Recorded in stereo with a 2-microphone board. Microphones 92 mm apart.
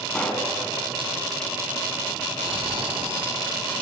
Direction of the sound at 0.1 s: 10° left (ahead or behind).